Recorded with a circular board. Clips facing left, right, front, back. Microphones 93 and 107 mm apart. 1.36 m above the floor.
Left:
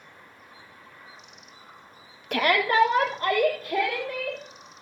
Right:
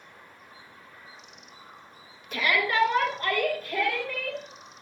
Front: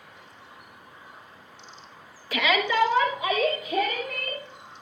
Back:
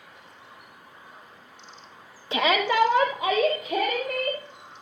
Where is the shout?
115° left, 0.5 m; by 4.4 s 165° left, 2.5 m.